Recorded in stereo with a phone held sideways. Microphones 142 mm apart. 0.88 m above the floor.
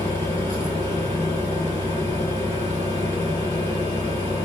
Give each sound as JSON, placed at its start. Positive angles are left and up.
{"t": 0.0, "sound": "a fan", "side_deg": -45, "distance_m": 1.5}